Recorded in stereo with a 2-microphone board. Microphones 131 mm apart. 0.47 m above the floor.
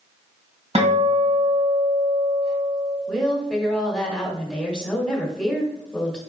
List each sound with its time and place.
0.8 s a guitar: 50° right (ahead or behind), 1.6 m
3.1 s a woman speaking: 5° left (ahead or behind), 1.2 m